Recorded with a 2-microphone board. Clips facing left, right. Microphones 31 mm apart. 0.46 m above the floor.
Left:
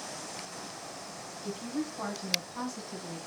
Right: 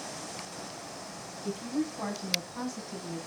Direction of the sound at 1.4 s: 5° left (ahead or behind).